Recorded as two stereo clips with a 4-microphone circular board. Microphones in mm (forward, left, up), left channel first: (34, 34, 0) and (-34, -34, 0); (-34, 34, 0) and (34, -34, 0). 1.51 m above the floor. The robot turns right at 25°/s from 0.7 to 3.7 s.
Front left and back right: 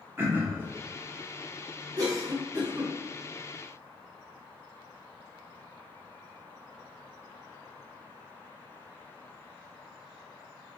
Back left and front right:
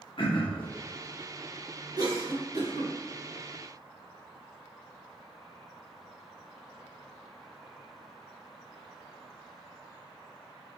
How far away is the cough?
About 2.0 m.